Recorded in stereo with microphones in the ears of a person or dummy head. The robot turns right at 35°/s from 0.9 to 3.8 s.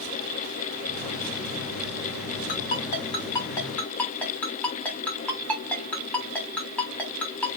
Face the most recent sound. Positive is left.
turn(degrees=10)  # may be behind; listen again after turning